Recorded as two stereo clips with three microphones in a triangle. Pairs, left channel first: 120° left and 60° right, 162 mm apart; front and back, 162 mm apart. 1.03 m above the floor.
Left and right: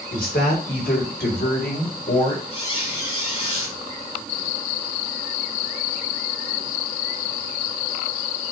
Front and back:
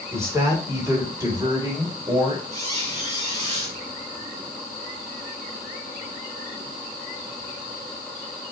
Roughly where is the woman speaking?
Left.